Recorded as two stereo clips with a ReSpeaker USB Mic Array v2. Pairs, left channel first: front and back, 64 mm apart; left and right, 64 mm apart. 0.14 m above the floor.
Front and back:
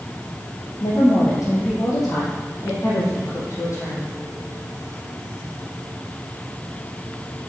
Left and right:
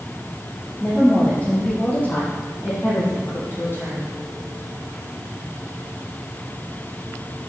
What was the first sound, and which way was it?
A woman speaking, 10° left.